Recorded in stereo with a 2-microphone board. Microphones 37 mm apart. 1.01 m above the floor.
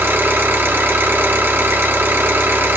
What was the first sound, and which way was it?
An engine running, 85° right.